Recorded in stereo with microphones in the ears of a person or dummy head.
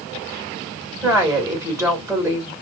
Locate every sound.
1.0 s a woman speaking: 15° right (ahead or behind), 1.7 m